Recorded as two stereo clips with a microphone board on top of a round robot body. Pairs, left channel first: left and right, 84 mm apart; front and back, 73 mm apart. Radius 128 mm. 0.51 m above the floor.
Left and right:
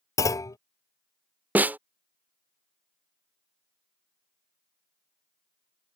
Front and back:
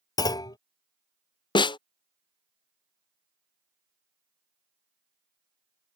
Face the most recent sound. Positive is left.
turn(degrees=-20)